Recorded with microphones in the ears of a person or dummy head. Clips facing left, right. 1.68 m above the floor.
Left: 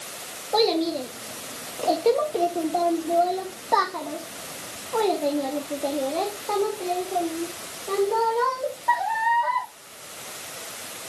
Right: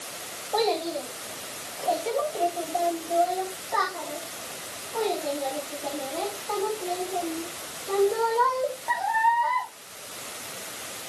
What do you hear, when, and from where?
0.5 s a child speaking: 45° left (ahead or behind), 2.5 m; by 9.7 s 40° left (ahead or behind), 4 m